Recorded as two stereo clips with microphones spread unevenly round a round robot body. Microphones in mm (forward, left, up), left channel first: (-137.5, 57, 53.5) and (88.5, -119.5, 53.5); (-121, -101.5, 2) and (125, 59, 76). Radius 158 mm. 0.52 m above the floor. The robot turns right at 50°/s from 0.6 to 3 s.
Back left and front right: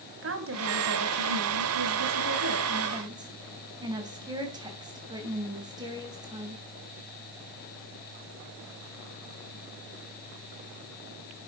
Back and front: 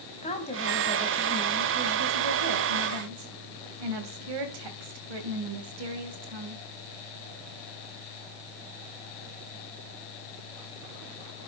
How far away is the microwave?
I don't hear a microwave.